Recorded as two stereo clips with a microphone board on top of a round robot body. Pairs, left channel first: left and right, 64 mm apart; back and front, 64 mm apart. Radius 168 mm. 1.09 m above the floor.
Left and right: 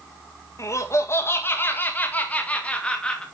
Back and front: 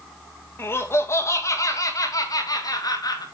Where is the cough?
I don't hear a cough.